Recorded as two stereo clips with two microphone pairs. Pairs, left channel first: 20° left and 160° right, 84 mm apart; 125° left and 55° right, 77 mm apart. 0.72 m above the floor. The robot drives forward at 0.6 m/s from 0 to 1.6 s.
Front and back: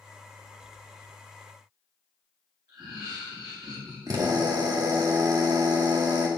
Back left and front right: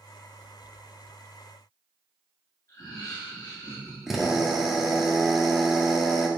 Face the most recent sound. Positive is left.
turn(degrees=-140)